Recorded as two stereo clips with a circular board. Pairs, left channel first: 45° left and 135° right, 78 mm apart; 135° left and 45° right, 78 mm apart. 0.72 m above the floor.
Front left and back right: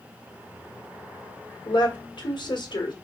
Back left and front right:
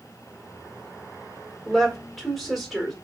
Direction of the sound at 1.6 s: 45° left.